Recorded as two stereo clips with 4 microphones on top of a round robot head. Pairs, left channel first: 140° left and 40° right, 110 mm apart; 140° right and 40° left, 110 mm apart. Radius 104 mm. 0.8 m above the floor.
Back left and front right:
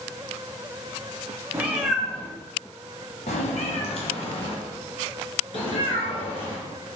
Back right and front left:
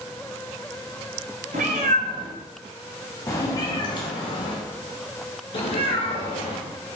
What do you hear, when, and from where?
1.5 s a cat meowing: 30° left, 0.8 m; by 7.0 s straight behind, 3 m